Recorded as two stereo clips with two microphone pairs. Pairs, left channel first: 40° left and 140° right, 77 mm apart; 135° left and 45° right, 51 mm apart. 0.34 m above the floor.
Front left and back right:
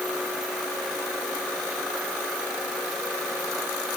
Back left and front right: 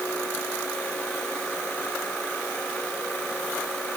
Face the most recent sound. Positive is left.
No sound to turn to.